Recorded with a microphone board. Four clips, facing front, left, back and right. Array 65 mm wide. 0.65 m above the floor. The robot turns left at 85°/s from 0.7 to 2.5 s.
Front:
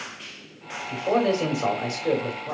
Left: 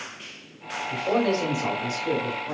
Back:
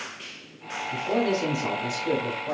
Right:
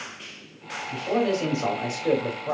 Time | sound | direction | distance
0.9 | a man speaking | 45° left | 3 m